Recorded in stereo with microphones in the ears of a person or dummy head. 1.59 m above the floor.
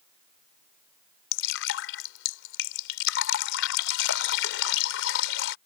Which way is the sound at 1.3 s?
70° left (ahead or behind).